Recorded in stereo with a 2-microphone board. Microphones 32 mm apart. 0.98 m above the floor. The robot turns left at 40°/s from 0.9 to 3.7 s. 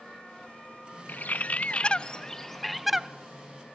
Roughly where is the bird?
Ahead left.